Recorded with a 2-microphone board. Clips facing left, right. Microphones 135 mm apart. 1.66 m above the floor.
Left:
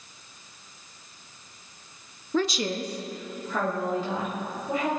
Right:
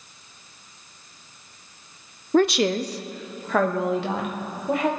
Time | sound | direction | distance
2.3 | a woman speaking | 50° right (ahead or behind) | 0.5 m